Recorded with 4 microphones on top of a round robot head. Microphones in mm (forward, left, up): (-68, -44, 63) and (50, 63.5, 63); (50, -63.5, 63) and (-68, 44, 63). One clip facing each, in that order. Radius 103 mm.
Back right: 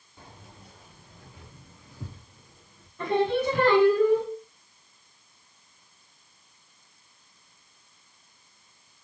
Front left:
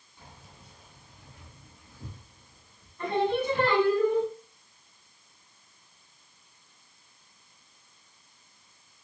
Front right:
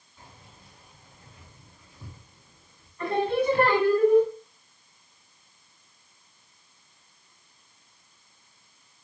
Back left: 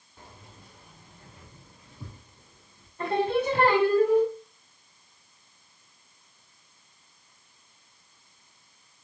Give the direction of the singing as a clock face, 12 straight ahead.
5 o'clock.